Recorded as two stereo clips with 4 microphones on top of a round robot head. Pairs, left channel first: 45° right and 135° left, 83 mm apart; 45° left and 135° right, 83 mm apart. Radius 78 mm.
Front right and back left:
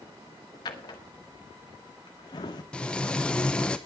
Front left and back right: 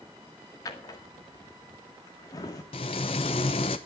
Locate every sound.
0.7 s a drawer: 5° right, 1.7 m
2.7 s frying: 35° left, 0.8 m